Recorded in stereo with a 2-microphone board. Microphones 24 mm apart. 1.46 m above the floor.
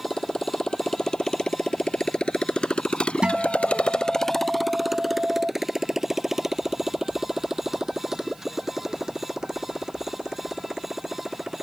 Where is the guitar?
45° right (ahead or behind).